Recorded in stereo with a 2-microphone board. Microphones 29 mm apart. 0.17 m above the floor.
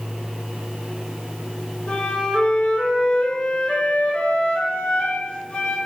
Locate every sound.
1.9 s a flute: 40° left (ahead or behind), 0.7 m